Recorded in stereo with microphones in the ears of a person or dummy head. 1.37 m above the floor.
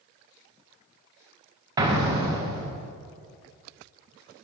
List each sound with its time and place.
1.8 s an explosion: 20° right (ahead or behind), 0.7 m